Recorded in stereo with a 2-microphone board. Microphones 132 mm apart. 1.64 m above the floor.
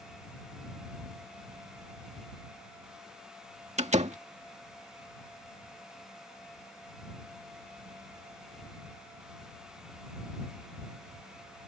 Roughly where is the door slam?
Right.